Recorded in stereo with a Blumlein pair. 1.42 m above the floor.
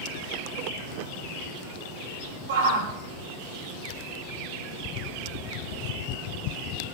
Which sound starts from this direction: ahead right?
A shout, at 2.5 s.